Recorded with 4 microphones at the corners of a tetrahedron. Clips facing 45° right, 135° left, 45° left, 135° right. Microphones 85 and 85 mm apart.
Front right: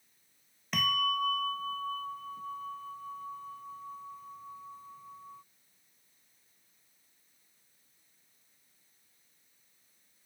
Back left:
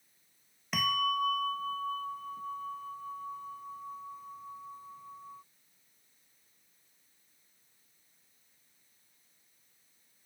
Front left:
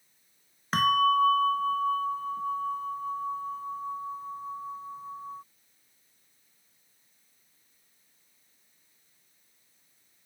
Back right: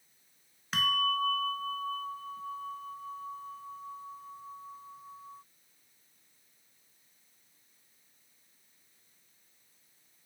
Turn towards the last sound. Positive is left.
turn(degrees=55)